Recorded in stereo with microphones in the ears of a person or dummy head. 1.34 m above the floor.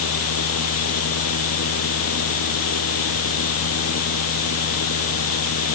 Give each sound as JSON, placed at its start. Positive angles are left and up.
{"t": 0.0, "sound": "a fan", "side_deg": 85}